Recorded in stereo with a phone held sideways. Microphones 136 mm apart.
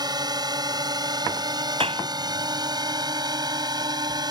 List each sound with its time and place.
0.0 s a drone: 30° right (ahead or behind)
1.8 s a clap: 45° right (ahead or behind)